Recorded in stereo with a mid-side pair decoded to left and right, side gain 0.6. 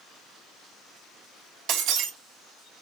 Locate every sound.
1.7 s breaking glass: 70° right, 1.2 m